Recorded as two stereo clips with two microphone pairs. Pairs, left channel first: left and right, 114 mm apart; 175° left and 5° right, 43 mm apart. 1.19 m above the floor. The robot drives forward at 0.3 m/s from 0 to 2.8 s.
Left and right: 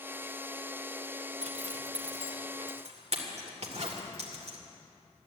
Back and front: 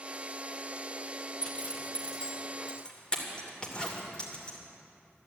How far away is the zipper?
About 2.5 m.